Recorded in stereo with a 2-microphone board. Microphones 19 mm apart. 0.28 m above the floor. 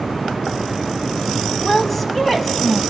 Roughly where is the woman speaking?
Centre.